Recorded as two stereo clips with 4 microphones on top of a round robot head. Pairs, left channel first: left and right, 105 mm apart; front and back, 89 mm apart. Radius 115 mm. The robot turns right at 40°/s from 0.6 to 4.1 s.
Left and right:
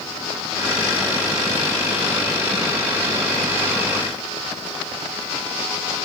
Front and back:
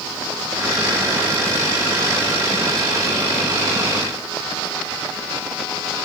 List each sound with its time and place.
Only background noise.